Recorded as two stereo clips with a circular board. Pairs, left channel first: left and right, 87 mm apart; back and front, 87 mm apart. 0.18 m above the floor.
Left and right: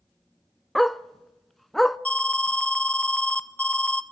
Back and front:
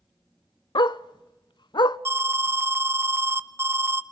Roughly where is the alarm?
Ahead left.